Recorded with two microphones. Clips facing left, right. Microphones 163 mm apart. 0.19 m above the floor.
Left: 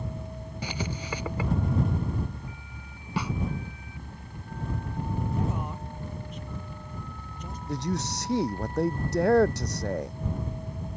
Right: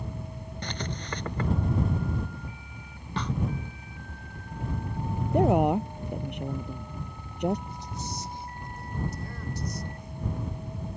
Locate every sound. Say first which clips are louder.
0.6 s writing: left 2 dB; 5° left (ahead or behind)
3.2 s a snare drum: left 1 dB; 10° left (ahead or behind)
5.3 s a woman speaking: right 10 dB; 70° right (ahead or behind)
7.7 s a man speaking: left 8 dB; 80° left